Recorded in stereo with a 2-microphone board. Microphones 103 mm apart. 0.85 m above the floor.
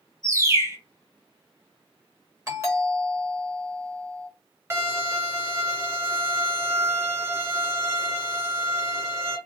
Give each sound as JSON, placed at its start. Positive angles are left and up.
{"t": 0.2, "sound": "a bird", "side_deg": -30, "distance_m": 1.6}
{"t": 2.5, "sound": "a doorbell", "side_deg": -30, "distance_m": 1.5}
{"t": 4.7, "sound": "a violin", "side_deg": -30, "distance_m": 1.6}